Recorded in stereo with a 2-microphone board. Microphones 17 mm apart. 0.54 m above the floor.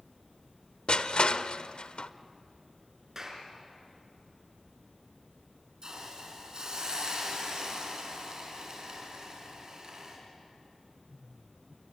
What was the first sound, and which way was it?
Crushing, 75° left (ahead or behind).